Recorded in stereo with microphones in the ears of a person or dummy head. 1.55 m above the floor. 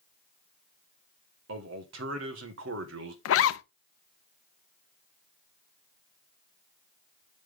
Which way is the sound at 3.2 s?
70° left (ahead or behind).